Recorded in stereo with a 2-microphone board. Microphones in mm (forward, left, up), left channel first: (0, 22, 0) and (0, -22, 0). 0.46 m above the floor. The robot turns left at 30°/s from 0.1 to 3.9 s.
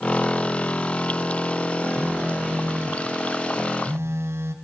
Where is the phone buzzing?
20° right, 1.6 m; by 4.5 s 80° right, 1.6 m.